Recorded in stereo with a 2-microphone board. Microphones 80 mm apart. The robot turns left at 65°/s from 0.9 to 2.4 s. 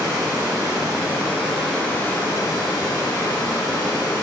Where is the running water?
135° right, 0.8 m; by 4.2 s 130° left, 0.8 m.